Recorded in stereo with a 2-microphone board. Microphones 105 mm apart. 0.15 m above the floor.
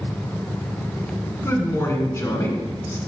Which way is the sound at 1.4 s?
25° left (ahead or behind).